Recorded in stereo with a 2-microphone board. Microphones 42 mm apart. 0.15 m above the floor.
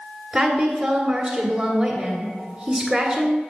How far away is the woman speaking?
About 1.5 m.